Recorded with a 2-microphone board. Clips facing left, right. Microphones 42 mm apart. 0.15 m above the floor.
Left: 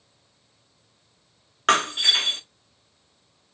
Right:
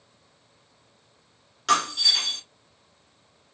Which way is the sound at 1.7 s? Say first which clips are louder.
Left 3 dB; 45° left (ahead or behind).